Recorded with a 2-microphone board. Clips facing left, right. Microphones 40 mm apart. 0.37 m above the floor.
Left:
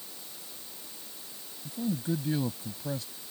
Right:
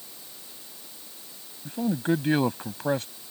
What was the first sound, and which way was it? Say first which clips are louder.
A man speaking: right 6 dB; 60° right (ahead or behind).